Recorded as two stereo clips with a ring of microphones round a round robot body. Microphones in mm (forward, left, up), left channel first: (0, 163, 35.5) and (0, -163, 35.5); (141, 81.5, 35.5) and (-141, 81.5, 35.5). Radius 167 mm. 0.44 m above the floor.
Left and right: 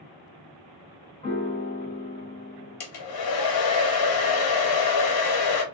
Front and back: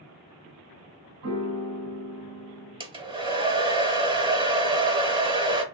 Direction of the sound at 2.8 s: 105° left.